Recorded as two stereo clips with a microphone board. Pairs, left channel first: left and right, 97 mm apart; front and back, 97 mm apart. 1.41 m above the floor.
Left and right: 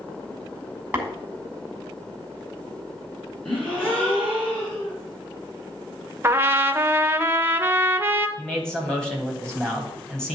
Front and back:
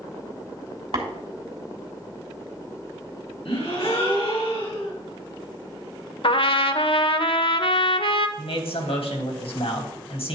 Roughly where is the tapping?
Behind.